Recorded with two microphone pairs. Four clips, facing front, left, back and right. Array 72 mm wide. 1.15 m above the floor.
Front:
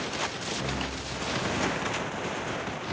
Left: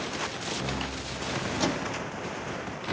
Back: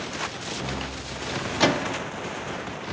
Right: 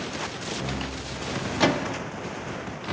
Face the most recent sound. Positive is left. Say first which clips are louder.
# right 8 dB, back 6 dB
turn(degrees=-150)